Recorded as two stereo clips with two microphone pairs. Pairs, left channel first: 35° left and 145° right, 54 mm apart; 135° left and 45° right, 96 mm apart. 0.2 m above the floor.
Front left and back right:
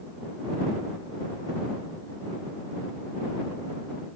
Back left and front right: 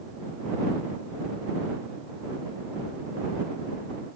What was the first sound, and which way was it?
Only background noise.